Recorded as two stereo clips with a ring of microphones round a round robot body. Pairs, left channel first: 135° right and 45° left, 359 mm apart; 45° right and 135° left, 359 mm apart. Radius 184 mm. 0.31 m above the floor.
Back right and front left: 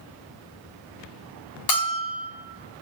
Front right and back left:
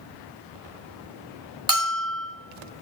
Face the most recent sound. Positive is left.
turn(degrees=-145)